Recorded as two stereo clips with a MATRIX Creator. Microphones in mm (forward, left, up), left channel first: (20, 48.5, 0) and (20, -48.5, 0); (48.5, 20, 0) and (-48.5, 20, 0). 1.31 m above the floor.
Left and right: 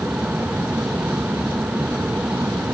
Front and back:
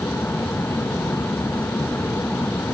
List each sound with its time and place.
Only background noise.